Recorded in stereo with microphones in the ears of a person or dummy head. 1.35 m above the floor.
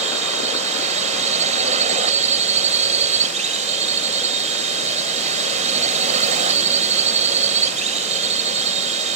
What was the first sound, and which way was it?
A drone, 45° right (ahead or behind).